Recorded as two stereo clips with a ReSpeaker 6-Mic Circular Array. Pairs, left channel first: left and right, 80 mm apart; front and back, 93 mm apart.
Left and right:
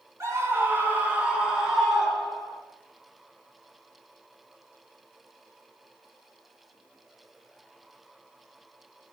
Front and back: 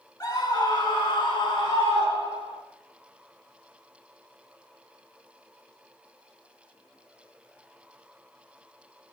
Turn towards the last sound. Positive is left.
turn(degrees=0)